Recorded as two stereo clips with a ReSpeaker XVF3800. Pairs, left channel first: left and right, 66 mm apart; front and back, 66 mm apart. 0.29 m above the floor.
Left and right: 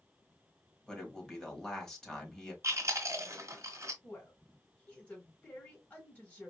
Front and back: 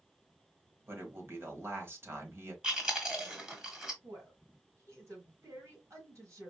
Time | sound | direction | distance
0.9 | a man speaking | 165° left | 1.3 m
2.6 | chewing | 105° right | 1.5 m
4.0 | a woman speaking | 155° left | 2 m